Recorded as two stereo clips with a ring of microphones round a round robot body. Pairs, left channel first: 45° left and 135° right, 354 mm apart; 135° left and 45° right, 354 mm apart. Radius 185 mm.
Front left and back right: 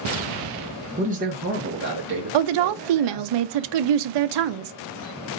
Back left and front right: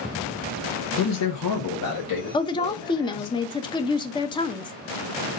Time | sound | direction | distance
1.0 | a man speaking | 160° left | 0.8 m
2.3 | a woman speaking | 145° right | 0.6 m